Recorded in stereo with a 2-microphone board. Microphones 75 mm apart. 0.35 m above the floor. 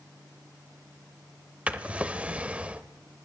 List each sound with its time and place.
1.7 s a drawer: 15° right (ahead or behind), 0.7 m